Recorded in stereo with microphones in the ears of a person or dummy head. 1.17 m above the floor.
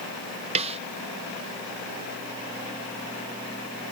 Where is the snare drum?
35° right (ahead or behind).